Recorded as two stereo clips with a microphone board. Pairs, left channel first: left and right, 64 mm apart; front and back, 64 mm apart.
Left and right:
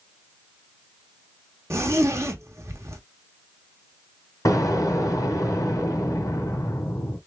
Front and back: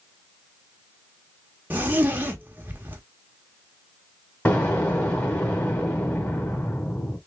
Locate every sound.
1.7 s a zipper: 120° right, 1.1 m
4.5 s an explosion: 60° left, 2 m